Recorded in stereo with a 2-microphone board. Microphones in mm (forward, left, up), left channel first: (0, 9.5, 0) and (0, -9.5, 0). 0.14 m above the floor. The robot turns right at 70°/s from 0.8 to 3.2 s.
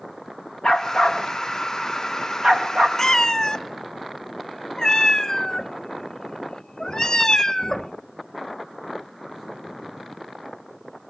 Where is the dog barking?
65° left (ahead or behind), 3 m; by 2.9 s 80° right, 3 m.